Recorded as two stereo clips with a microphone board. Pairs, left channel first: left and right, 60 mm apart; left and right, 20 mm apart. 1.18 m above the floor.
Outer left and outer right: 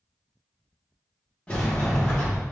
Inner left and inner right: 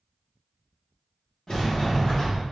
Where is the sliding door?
20° left (ahead or behind), 1.1 m.